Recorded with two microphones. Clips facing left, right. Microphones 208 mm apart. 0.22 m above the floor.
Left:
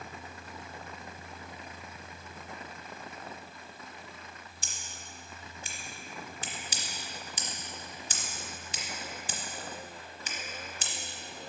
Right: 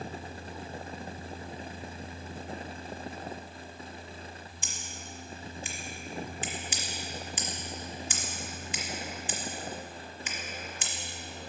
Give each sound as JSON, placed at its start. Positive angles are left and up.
{"t": 4.6, "sound": "scissors", "side_deg": 40, "distance_m": 1.2}